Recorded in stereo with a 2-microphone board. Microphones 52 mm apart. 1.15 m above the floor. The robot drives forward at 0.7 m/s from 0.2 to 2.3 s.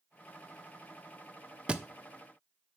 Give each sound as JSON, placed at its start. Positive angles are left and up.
{"t": 1.7, "sound": "a thud", "side_deg": -20, "distance_m": 0.5}